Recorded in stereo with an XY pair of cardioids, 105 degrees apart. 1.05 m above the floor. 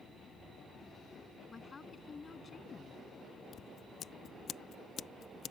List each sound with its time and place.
1.5 s a woman speaking: 35° left
3.5 s scissors: 60° left